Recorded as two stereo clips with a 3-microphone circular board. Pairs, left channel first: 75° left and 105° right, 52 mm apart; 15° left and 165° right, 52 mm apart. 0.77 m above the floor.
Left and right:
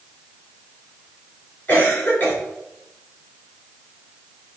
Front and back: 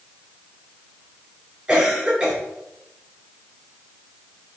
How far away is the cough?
About 3 m.